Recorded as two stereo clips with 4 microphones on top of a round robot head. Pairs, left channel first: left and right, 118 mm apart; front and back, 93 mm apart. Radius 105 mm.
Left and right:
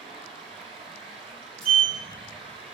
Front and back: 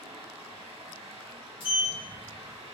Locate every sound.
0.0 s running water: 110° right, 1.9 m
1.6 s a sliding door: 5° left, 1.1 m